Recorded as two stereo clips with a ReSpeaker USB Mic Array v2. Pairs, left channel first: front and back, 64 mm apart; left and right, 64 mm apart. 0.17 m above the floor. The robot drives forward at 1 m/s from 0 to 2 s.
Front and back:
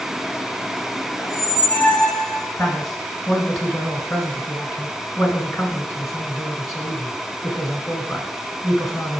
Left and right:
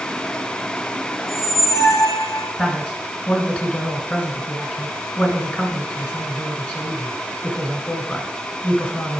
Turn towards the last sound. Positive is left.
turn(degrees=85)